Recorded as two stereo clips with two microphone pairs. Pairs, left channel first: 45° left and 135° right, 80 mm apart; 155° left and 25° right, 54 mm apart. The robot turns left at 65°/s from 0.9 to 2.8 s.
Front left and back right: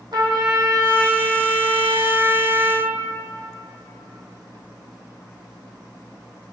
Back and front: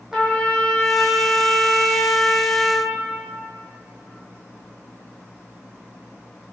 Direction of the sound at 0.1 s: 105° right.